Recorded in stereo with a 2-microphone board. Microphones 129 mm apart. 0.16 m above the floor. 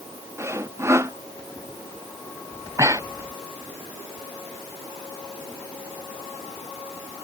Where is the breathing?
25° right (ahead or behind).